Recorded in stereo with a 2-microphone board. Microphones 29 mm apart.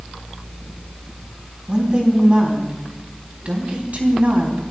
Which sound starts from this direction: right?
A woman speaking, at 1.7 s.